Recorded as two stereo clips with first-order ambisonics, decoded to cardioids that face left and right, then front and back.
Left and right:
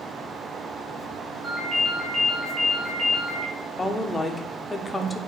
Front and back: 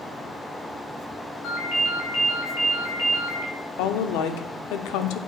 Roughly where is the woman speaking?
Ahead.